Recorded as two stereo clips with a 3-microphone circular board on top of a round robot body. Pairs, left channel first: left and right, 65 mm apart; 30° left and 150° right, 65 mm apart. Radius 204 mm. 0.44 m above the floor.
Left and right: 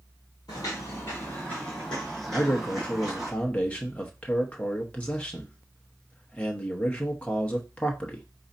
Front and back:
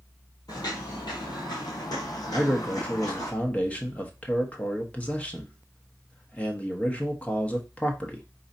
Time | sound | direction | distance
0.5 | footsteps | 65° left | 0.6 m
2.3 | a man speaking | 60° left | 1.3 m